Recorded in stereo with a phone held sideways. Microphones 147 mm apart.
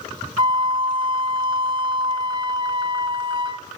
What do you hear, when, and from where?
0.4 s a flute: 35° right (ahead or behind), 2.5 m